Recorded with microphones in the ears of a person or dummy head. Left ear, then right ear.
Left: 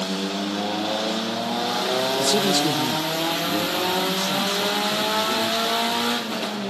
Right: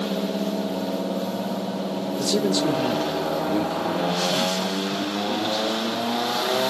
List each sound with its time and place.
2.2 s a man speaking: 15° left (ahead or behind), 0.5 m; by 6.5 s 15° right (ahead or behind), 2 m